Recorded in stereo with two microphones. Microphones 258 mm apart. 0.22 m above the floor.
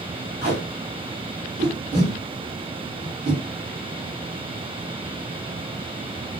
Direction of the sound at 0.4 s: 30° right (ahead or behind).